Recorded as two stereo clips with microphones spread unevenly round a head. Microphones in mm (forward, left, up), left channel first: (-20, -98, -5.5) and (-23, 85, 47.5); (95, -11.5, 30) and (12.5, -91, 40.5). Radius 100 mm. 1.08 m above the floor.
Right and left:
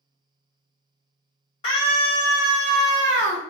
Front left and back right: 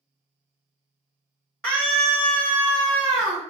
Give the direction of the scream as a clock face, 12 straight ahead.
1 o'clock.